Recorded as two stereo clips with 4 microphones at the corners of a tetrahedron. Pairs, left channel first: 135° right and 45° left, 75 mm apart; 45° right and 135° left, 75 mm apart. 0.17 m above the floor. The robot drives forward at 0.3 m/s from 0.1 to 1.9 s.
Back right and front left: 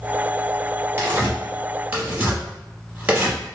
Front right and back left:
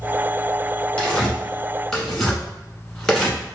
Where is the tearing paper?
20° left, 1.1 m; by 3.6 s 30° left, 1.0 m.